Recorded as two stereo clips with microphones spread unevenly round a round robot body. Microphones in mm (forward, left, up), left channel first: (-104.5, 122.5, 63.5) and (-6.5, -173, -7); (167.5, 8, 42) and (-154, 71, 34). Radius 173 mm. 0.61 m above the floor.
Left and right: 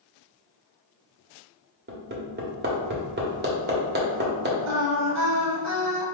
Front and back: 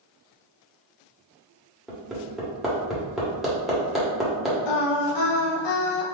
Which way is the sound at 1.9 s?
105° right.